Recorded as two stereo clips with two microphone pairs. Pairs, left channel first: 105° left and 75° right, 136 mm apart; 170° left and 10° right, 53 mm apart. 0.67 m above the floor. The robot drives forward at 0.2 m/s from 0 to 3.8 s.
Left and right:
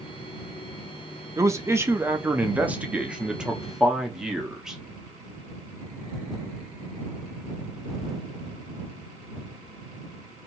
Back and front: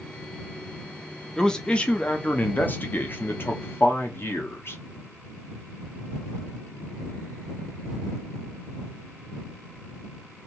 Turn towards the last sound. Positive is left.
turn(degrees=-160)